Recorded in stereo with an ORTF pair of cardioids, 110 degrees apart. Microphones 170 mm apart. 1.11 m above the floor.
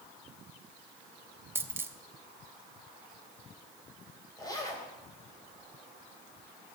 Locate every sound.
1.6 s a dropped coin: 15° right, 1.1 m
4.4 s a zipper: 20° left, 3.5 m